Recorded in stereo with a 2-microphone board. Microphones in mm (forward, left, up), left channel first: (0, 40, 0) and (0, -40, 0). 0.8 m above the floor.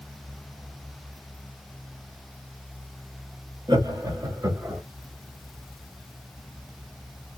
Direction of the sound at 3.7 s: 55° right (ahead or behind).